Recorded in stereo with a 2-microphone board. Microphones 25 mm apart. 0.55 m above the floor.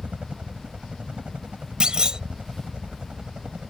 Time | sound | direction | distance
0.0 | a helicopter | 55° right (ahead or behind) | ?
1.8 | a clunk | 40° right (ahead or behind) | ?